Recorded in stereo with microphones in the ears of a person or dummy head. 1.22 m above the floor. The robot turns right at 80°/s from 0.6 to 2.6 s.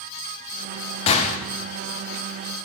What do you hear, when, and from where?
1.1 s a gunshot: 35° left (ahead or behind), 0.8 m; by 1.4 s 40° left (ahead or behind), 0.8 m